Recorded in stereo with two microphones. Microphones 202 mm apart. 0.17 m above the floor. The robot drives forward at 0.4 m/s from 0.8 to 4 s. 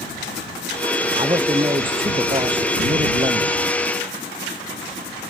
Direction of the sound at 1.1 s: 25° right (ahead or behind).